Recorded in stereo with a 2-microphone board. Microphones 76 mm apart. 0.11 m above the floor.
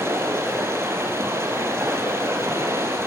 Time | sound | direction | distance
0.0 | running water | 35° right (ahead or behind) | 2 m